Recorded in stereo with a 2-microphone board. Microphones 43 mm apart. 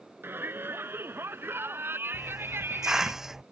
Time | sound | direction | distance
0.2 | a shout | 60° right (ahead or behind) | ?
2.1 | a hiss | 10° right (ahead or behind) | ?